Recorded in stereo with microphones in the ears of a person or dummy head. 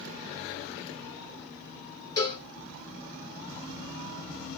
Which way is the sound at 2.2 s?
35° left (ahead or behind).